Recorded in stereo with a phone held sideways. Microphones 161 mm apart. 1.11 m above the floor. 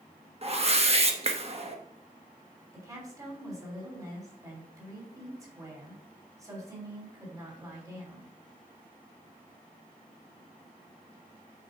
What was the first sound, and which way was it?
A whoosh, 40° right (ahead or behind).